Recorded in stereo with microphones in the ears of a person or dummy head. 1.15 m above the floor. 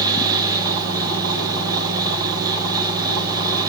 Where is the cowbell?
No cowbell in this recording.